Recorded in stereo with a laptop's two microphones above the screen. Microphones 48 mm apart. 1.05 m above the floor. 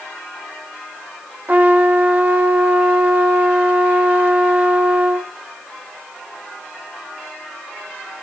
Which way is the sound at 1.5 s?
35° right (ahead or behind).